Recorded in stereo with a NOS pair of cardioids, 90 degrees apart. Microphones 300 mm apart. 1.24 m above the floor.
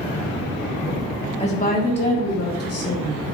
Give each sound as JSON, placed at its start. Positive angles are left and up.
{"t": 1.4, "sound": "a woman speaking", "azimuth_deg": 20, "distance_m": 2.5}